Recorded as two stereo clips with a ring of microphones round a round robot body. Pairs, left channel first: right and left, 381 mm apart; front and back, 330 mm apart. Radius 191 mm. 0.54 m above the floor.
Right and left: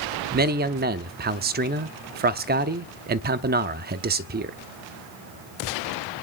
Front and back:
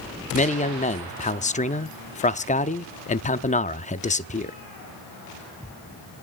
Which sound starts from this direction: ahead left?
A man speaking, at 0.3 s.